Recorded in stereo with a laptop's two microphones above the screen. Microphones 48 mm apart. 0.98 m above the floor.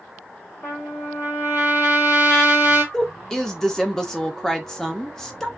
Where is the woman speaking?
10° left (ahead or behind), 0.8 m.